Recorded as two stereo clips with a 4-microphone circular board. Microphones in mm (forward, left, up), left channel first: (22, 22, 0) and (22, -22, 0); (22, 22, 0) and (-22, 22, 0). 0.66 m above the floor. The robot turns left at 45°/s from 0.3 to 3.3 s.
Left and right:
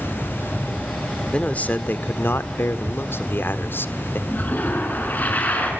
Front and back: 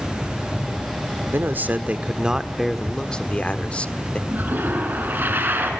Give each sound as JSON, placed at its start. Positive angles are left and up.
{"t": 1.3, "sound": "a man speaking", "azimuth_deg": 150, "distance_m": 1.4}
{"t": 4.3, "sound": "a toilet flushing", "azimuth_deg": 140, "distance_m": 5.0}